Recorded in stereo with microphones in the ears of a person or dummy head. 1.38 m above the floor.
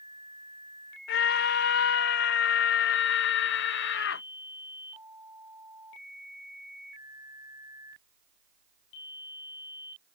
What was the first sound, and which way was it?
A scream, 60° left (ahead or behind).